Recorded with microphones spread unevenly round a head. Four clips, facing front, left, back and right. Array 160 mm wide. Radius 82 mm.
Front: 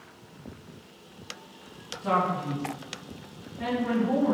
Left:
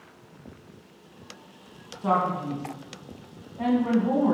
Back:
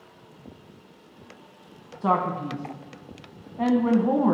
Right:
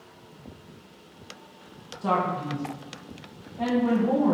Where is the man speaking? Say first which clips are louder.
Left 1 dB, back 2 dB; 175° right, 1.5 m.